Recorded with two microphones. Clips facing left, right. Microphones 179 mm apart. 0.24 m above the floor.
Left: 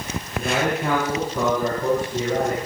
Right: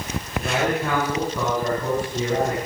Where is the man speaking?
15° left (ahead or behind), 9.5 m; by 2.6 s 10° left (ahead or behind), 8.5 m.